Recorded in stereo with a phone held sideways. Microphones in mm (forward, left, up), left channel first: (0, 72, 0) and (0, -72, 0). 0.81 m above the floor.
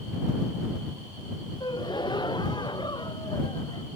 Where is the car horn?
I don't hear a car horn.